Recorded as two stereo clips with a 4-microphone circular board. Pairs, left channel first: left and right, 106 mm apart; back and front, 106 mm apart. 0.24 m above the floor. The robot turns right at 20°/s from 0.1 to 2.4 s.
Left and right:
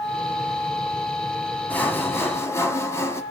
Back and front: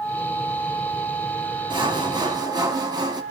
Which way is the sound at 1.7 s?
20° left.